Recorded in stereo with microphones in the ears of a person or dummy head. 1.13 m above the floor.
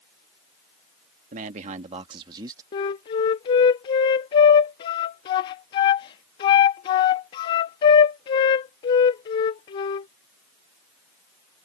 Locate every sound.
1.3 s a man speaking: 50° right (ahead or behind); by 2.6 s 20° right (ahead or behind)
2.7 s a flute: 25° left (ahead or behind)